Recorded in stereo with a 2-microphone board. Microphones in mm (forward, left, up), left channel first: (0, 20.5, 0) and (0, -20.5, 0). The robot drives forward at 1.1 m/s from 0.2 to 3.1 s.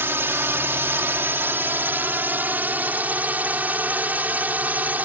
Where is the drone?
70° right (ahead or behind); by 5.0 s 45° right (ahead or behind).